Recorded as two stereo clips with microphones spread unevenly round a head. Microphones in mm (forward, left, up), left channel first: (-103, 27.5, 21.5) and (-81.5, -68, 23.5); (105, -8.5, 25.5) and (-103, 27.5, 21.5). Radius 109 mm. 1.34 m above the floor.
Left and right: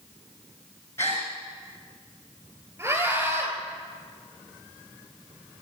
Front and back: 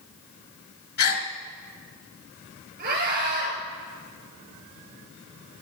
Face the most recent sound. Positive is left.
turn(degrees=-145)